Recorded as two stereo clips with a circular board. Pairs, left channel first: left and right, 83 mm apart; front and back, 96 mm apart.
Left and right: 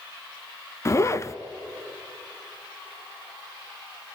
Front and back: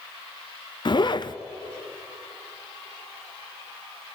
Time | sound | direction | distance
0.8 | a zipper | 35° left | 0.6 m